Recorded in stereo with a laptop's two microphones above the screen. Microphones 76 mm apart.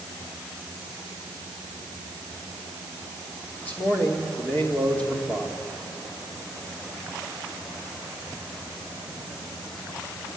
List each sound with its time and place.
3.6 s a man speaking: 20° left (ahead or behind), 2.5 m